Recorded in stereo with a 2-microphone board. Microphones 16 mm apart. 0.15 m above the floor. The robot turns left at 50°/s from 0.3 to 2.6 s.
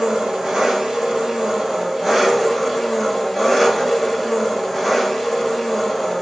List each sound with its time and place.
0.0 s an engine running: 75° right, 1.3 m; by 6.2 s 170° left, 1.3 m